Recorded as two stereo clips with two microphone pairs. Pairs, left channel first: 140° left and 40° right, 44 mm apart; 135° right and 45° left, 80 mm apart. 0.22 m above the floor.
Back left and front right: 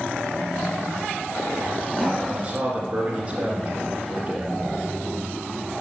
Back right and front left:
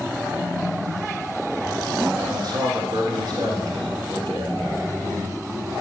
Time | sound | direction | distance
2.3 | a man speaking | 20° left | 2.5 m